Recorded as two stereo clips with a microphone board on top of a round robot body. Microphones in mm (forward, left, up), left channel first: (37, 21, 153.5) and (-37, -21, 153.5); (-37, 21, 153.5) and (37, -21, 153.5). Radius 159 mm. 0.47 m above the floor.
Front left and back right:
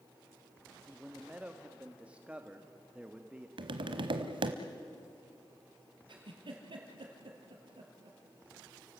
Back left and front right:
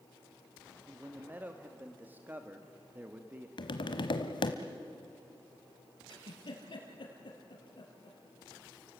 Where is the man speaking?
85° right, 1.4 m.